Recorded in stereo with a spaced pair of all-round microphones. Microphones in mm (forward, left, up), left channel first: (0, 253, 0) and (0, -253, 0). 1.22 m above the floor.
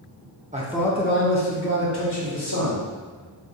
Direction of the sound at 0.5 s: 15° right (ahead or behind).